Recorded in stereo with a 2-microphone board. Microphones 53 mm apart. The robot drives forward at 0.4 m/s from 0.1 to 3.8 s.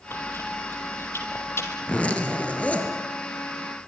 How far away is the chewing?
About 5 m.